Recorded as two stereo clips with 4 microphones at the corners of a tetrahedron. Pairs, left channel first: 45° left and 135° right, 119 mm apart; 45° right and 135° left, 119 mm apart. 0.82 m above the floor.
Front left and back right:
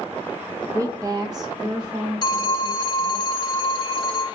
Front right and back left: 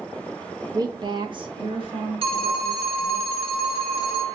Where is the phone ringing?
100° left, 0.8 m.